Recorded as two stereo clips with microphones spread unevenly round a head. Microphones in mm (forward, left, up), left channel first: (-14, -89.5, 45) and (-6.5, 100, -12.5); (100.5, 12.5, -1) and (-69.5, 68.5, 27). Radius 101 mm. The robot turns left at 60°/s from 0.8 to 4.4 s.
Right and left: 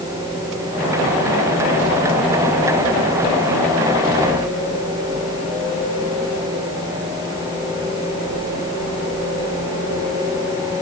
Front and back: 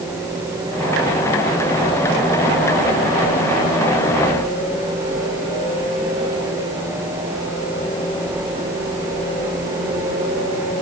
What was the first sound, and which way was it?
Only background noise.